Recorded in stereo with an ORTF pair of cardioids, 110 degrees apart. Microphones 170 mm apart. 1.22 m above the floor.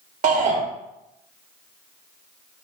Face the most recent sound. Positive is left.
turn(degrees=-45)